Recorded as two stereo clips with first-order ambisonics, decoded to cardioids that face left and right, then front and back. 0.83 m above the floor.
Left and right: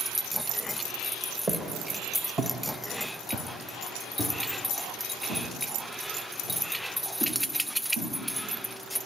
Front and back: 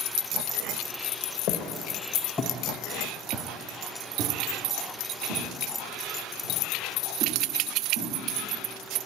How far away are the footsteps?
About 1.2 m.